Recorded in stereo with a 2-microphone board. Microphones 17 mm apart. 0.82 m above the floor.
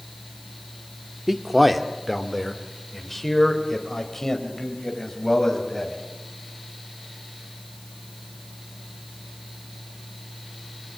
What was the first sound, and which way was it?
A man speaking, 10° right (ahead or behind).